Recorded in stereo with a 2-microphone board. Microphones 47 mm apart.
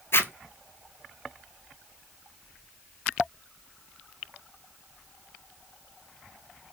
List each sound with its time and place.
0.1 s a zipper: 60° left (ahead or behind), 0.8 m